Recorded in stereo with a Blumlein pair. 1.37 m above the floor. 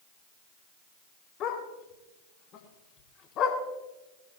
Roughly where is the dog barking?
Ahead left.